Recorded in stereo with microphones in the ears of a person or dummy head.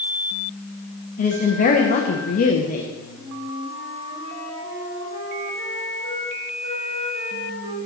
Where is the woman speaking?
40° left (ahead or behind), 0.9 m.